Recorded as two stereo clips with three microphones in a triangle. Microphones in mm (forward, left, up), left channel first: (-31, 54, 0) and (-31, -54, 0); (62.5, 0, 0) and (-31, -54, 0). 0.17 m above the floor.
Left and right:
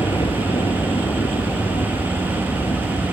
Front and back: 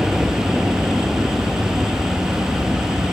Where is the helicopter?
125° left.